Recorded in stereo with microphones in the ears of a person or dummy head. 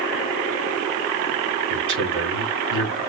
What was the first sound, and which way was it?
A man speaking, 80° right.